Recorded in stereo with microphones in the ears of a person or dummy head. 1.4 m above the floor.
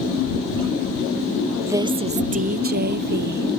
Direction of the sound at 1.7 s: 10° right (ahead or behind).